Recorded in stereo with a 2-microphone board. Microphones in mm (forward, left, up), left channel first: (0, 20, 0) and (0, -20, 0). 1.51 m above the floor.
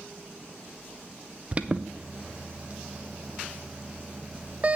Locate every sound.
1.5 s an alarm: 30° right (ahead or behind), 0.5 m